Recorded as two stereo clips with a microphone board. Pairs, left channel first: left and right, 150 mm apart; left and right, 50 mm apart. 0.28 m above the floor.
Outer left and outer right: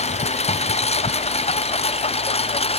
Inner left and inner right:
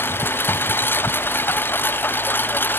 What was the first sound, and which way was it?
A lawn mower, 45° left (ahead or behind).